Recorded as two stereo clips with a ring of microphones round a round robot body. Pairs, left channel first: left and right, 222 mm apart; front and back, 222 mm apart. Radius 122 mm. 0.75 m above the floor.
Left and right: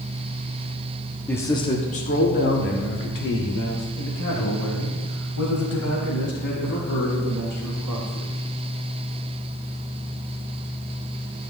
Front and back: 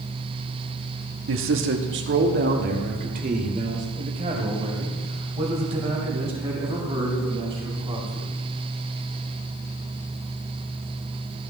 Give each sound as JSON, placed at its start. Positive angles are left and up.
{"t": 1.3, "sound": "a man speaking", "azimuth_deg": 175, "distance_m": 1.1}